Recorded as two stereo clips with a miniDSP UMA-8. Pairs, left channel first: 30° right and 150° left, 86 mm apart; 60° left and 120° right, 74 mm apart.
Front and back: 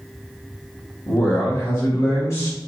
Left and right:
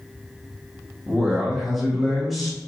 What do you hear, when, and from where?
1.1 s a man speaking: 35° right, 1.2 m